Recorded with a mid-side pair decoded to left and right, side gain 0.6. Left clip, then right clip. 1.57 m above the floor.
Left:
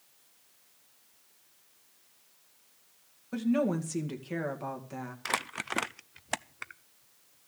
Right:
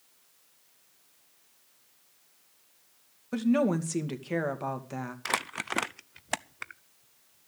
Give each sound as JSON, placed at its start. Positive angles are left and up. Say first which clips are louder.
{"t": 3.3, "sound": "a woman speaking", "louder": "right 3 dB", "azimuth_deg": -25, "distance_m": 2.0}
{"t": 5.2, "sound": "crumpling", "louder": "right 1 dB", "azimuth_deg": -10, "distance_m": 0.5}